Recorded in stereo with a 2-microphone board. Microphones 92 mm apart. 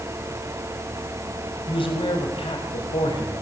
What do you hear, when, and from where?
1.7 s a man speaking: 75° left (ahead or behind), 4.5 m; by 3.4 s 80° left, 4.5 m